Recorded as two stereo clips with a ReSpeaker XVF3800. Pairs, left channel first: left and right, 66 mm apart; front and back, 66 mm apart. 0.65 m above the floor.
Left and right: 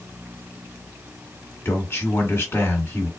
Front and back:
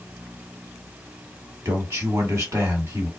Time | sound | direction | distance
1.6 | a man speaking | 140° left | 1.6 m